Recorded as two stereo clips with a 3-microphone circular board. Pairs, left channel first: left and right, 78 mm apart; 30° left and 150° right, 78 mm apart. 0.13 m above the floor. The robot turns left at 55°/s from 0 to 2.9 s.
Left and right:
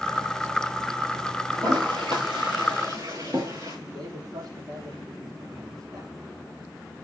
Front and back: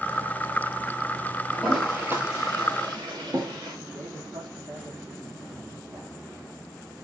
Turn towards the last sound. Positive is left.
turn(degrees=-120)